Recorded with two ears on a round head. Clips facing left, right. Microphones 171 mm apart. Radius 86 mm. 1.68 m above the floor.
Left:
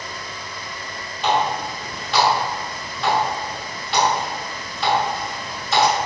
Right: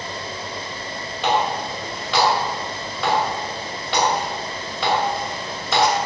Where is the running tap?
70° right (ahead or behind), 2.5 m.